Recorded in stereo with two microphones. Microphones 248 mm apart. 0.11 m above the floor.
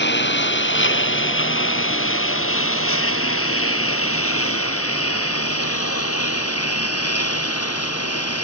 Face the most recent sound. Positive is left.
turn(degrees=70)  # may be behind; listen again after turning